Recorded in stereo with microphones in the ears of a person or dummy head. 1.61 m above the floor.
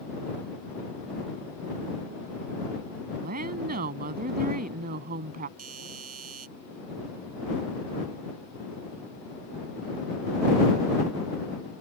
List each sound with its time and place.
3.2 s a woman speaking: 45° right (ahead or behind)
5.6 s a doorbell: 45° right (ahead or behind)